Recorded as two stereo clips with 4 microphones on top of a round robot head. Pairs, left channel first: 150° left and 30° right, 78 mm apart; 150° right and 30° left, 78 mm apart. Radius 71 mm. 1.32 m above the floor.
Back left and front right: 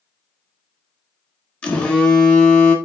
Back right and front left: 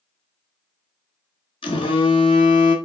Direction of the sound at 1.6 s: 135° right.